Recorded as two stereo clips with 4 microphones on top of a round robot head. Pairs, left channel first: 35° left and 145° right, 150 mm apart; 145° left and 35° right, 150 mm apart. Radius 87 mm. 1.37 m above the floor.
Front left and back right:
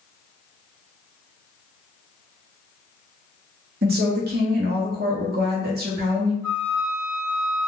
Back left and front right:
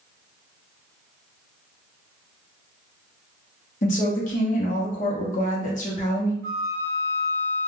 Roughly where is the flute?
Right.